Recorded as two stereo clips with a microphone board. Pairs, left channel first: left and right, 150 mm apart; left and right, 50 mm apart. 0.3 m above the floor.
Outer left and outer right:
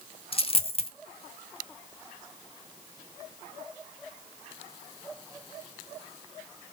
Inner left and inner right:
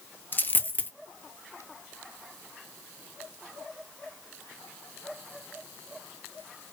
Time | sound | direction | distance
0.3 | a dropped coin | 40° left (ahead or behind) | 0.5 m